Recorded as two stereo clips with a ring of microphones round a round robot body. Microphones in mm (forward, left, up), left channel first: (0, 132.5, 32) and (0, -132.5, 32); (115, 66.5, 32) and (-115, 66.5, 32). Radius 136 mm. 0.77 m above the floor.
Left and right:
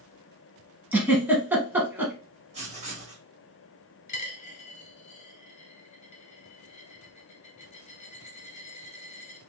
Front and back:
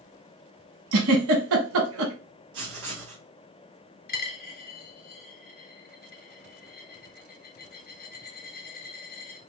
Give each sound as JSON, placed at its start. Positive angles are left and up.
{"t": 0.9, "sound": "a giggle", "azimuth_deg": -170, "distance_m": 1.0}
{"t": 2.5, "sound": "writing", "azimuth_deg": -155, "distance_m": 1.7}
{"t": 4.1, "sound": "a dropped coin", "azimuth_deg": 35, "distance_m": 1.0}